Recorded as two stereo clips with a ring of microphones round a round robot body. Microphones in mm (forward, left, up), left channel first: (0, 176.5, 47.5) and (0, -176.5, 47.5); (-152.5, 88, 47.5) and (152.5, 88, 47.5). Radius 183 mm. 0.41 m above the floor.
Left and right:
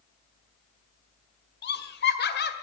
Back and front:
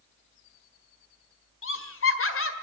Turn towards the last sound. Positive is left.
turn(degrees=145)